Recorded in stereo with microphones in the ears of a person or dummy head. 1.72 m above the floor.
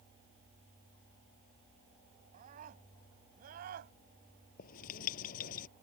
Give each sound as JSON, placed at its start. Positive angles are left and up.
{"t": 2.3, "sound": "a scream", "side_deg": -45}
{"t": 4.6, "sound": "writing", "side_deg": 50}